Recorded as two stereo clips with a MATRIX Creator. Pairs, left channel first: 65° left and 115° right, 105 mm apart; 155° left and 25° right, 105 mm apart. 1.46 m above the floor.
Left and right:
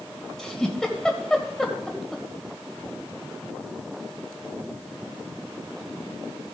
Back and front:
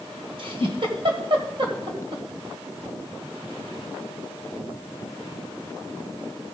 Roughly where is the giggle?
Ahead.